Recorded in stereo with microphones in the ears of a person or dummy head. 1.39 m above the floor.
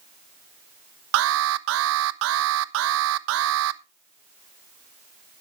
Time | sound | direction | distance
1.1 | an alarm | 75° right (ahead or behind) | 0.8 m